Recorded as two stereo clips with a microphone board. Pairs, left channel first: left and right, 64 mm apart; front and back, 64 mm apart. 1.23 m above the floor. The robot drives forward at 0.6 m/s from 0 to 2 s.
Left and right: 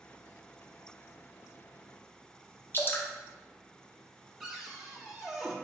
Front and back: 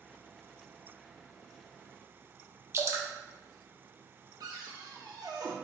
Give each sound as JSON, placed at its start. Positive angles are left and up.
{"t": 2.7, "sound": "dripping", "azimuth_deg": 140, "distance_m": 0.7}
{"t": 4.4, "sound": "a cupboard door", "azimuth_deg": -175, "distance_m": 0.8}